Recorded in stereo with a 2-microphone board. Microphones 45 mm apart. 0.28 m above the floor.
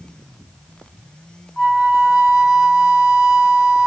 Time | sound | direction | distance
1.6 | a flute | centre (ahead or behind) | 0.9 m